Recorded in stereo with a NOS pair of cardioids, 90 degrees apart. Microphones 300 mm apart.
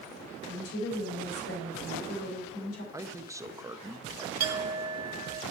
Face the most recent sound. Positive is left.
turn(degrees=-60)